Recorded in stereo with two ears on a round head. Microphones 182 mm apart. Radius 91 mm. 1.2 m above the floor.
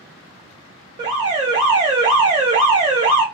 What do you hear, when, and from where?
1.0 s an alarm: 25° right (ahead or behind), 1.3 m